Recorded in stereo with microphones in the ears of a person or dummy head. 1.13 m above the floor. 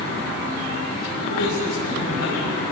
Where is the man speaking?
85° left, 7.5 m.